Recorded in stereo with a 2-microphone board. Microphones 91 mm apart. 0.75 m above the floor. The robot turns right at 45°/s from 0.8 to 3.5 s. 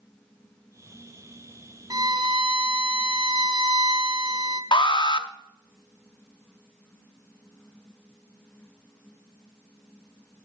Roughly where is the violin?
Behind right.